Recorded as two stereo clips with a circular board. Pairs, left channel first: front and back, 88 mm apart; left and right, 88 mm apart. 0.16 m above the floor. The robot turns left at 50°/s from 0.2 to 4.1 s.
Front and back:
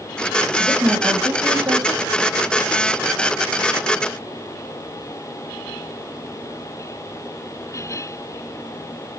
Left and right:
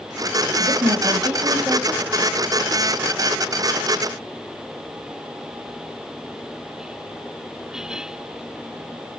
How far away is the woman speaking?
About 4 m.